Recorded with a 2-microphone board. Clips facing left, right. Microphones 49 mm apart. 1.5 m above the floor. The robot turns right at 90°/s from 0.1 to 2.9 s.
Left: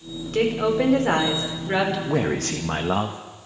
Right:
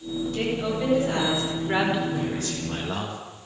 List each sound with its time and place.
0.3 s a woman speaking: 55° left, 6 m; by 2.0 s 160° right, 6 m
2.1 s a man speaking: 65° left, 1.6 m; by 3.2 s 140° left, 1.6 m